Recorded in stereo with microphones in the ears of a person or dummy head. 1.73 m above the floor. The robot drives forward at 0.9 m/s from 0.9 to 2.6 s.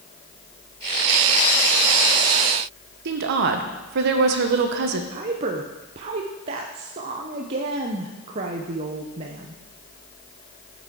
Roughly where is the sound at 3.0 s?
Right.